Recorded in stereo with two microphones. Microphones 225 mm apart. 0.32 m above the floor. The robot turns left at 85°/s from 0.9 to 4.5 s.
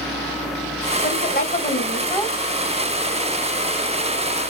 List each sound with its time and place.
1.0 s a woman speaking: 125° left, 1.6 m; by 2.4 s 10° left, 1.6 m